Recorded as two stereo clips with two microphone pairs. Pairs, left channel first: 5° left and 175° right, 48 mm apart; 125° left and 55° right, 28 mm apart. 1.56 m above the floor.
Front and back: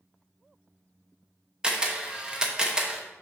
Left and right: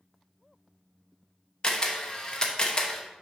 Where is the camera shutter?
125° left, 0.9 m.